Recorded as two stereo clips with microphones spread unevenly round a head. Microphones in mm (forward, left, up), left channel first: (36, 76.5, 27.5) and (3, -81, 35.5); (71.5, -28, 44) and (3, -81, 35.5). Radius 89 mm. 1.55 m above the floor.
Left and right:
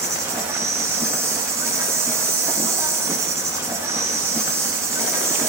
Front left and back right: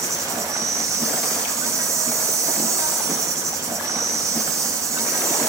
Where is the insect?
150° right, 0.9 m.